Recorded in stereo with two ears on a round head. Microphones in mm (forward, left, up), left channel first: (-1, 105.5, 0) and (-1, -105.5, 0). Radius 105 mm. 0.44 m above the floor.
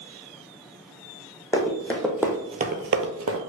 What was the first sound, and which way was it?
Running footsteps, 15° left (ahead or behind).